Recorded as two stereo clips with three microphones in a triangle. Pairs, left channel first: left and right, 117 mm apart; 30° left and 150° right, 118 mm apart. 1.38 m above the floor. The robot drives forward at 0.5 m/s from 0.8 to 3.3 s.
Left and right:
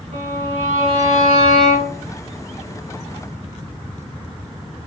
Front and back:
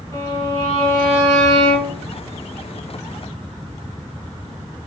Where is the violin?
95° right, 3 m; by 2.0 s 105° right, 3 m.